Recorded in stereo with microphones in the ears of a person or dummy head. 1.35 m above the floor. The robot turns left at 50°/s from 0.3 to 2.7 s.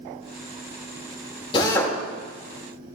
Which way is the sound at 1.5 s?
30° left (ahead or behind).